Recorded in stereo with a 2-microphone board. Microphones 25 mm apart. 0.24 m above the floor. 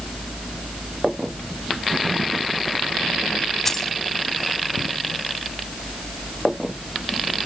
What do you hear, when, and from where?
3.6 s keys jangling: 15° left (ahead or behind), 1.0 m